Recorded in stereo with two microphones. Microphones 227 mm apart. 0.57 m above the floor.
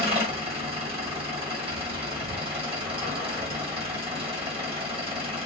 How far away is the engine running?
About 2.0 m.